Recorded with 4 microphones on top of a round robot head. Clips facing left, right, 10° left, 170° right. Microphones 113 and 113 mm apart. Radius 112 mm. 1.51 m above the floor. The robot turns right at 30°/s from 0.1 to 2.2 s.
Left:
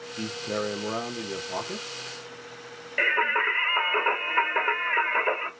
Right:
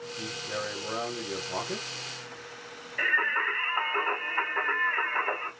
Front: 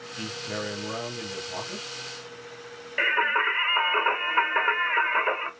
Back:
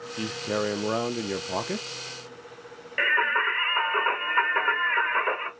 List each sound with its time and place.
0.2 s a man speaking: 130° left, 0.6 m; by 2.0 s 175° right, 0.6 m
3.0 s singing: 90° left, 1.2 m